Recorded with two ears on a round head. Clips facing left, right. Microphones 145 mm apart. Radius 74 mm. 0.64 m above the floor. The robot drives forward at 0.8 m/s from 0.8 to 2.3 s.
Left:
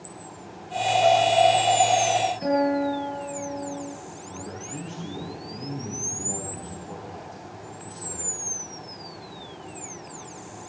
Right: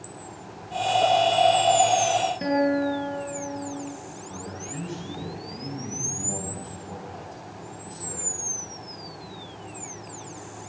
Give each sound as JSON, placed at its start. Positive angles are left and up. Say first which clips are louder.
{"t": 1.0, "sound": "a piano", "louder": "left 2 dB", "side_deg": -85, "distance_m": 7.0}
{"t": 2.4, "sound": "a guitar", "louder": "right 1 dB", "side_deg": -70, "distance_m": 7.0}
{"t": 4.3, "sound": "a man speaking", "louder": "left 1 dB", "side_deg": -15, "distance_m": 5.5}